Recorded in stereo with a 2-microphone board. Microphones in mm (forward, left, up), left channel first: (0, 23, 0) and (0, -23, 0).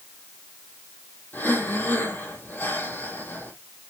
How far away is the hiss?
I don't hear a hiss.